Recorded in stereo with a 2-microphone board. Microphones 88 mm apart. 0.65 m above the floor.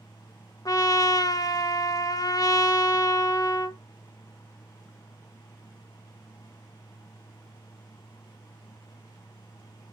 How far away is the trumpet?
About 0.6 m.